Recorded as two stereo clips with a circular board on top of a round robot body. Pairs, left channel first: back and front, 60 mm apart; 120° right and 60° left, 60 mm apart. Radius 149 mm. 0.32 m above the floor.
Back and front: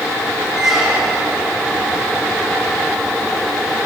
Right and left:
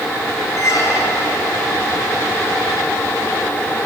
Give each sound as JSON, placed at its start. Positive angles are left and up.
{"t": 0.6, "sound": "a squeak", "azimuth_deg": -85, "distance_m": 1.3}